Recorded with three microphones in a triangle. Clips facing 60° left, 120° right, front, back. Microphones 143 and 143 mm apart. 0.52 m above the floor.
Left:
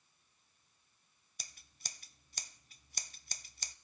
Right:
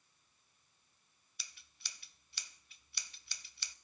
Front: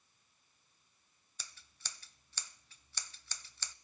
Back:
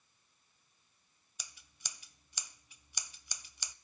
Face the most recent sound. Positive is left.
turn(degrees=105)